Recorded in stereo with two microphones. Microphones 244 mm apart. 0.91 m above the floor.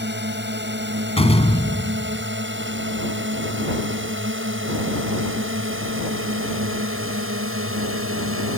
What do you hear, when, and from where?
0.0 s a drone: 45° right (ahead or behind); by 8.6 s 65° right (ahead or behind)
1.2 s a door slam: 25° left (ahead or behind)